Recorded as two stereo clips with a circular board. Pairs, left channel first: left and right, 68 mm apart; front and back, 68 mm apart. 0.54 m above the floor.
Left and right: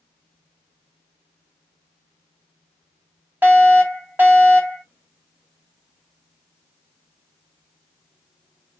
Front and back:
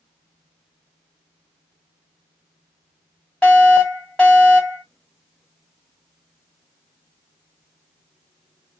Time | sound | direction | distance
3.4 | a fire alarm | 65° right | 1.7 m